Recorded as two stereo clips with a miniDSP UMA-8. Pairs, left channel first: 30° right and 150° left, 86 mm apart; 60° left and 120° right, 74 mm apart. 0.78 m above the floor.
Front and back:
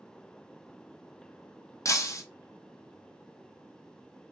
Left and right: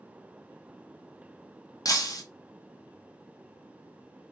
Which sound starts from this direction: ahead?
Breaking glass, at 1.9 s.